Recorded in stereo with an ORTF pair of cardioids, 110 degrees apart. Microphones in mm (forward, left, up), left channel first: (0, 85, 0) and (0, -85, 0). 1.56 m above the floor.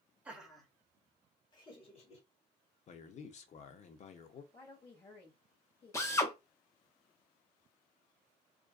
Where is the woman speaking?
35° left, 1.1 m.